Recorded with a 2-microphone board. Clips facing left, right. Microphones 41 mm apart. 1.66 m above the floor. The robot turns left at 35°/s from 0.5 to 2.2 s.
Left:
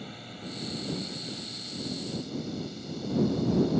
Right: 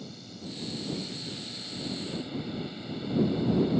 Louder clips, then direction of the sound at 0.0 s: Left 1 dB; 35° left.